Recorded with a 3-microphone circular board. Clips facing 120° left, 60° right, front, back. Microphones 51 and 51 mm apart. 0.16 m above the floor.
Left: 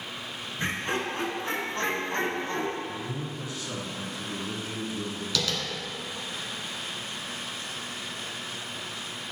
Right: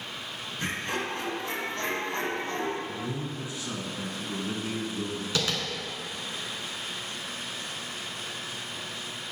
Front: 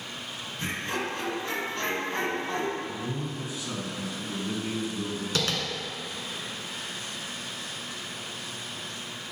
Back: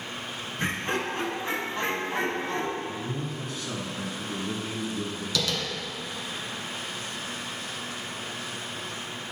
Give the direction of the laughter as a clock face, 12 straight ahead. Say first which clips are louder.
Left 2 dB, back 3 dB; 6 o'clock.